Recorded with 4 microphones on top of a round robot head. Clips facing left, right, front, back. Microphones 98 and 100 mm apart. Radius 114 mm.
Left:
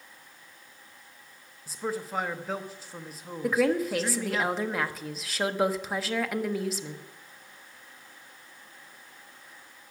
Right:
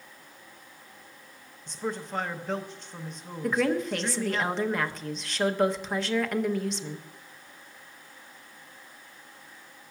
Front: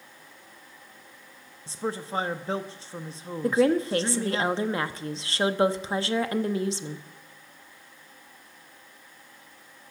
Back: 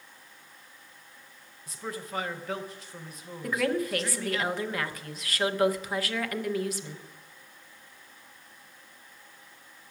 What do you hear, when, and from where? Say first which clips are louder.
1.7 s a man speaking: even, front 6 dB; 10° left, 0.9 m
3.4 s a woman speaking: left 1 dB, front 6 dB; 10° left, 1.0 m